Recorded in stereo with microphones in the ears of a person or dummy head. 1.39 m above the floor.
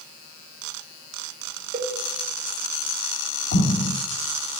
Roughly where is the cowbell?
Right.